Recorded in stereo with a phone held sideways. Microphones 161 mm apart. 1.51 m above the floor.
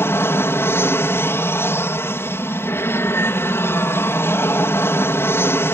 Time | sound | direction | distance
0.0 | an aircraft | 15° left (ahead or behind) | ?